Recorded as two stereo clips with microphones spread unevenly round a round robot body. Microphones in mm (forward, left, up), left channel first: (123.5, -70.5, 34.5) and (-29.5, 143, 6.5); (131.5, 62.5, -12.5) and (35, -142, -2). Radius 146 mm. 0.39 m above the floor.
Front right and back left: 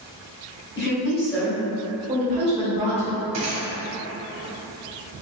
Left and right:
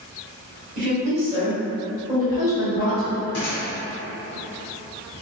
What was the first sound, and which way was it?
A woman speaking, 85° right.